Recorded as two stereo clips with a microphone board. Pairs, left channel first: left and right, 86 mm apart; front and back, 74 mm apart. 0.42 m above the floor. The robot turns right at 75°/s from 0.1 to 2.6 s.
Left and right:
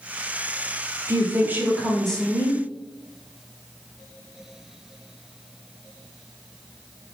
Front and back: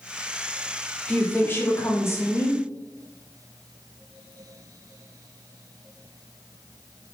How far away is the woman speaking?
About 1.0 m.